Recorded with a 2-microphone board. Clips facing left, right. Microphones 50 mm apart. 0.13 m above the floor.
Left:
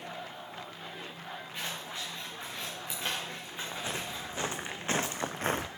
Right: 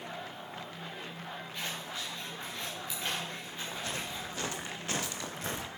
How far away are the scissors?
About 5 m.